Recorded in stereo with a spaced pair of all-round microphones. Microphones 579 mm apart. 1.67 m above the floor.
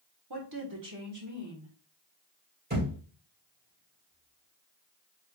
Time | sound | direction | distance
0.3 | a woman speaking | 40° right (ahead or behind) | 1.2 m
2.7 | a thud | 15° right (ahead or behind) | 3 m